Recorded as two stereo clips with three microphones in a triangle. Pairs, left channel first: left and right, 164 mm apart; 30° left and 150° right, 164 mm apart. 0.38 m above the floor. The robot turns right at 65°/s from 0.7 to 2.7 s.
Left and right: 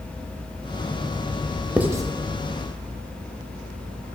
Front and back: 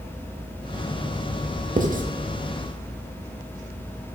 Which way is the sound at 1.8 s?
170° right.